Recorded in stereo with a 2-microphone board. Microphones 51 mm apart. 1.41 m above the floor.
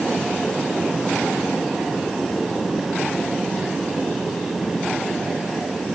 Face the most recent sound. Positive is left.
No sound to turn to.